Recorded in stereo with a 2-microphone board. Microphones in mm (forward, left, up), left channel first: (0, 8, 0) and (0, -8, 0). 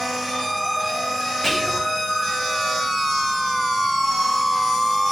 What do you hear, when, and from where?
1.4 s whispering: 20° left (ahead or behind), 5 m